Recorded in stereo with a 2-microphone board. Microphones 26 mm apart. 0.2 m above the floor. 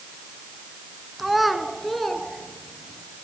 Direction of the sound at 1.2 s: 10° right (ahead or behind).